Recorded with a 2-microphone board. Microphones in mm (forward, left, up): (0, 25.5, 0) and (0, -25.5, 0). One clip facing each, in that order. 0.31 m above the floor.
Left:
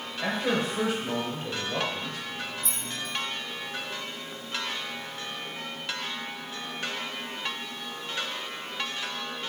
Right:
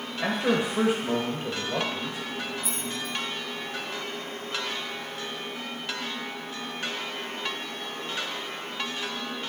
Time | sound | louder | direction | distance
0.2 | a man speaking | right 2 dB | 20° right (ahead or behind) | 1.2 m
2.6 | keys jangling | right 2 dB | 10° right (ahead or behind) | 1.5 m